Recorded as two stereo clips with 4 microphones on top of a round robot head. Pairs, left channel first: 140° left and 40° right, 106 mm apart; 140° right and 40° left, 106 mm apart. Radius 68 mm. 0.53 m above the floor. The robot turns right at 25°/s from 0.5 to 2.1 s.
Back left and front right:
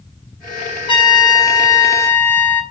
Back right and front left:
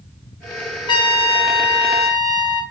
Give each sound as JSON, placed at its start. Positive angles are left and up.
{"t": 0.9, "sound": "a trumpet", "azimuth_deg": 175, "distance_m": 2.5}